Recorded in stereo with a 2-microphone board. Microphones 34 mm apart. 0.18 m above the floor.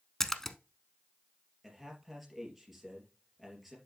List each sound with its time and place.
0.2 s a splash: 15° left (ahead or behind), 0.6 m
1.6 s a man speaking: 5° right (ahead or behind), 3 m